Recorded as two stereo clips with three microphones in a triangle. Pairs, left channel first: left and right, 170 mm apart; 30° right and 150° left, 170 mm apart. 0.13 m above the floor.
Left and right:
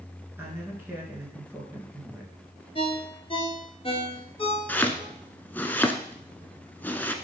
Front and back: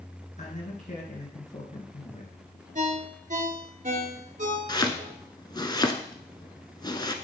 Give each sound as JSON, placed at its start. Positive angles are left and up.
{"t": 0.4, "sound": "a man speaking", "azimuth_deg": -15, "distance_m": 2.5}
{"t": 2.8, "sound": "a ringtone", "azimuth_deg": 135, "distance_m": 0.9}
{"t": 4.7, "sound": "chopping", "azimuth_deg": 15, "distance_m": 0.6}